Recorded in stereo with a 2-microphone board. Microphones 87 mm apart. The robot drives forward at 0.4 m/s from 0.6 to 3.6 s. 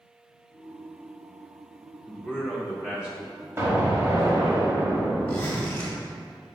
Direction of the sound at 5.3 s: 15° left (ahead or behind).